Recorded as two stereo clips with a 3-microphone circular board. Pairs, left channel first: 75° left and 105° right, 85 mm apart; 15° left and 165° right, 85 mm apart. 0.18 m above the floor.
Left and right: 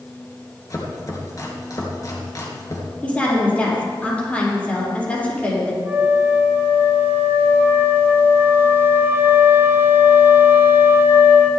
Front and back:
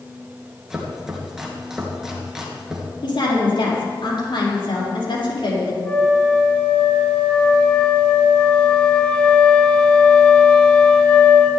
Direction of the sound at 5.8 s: 55° right.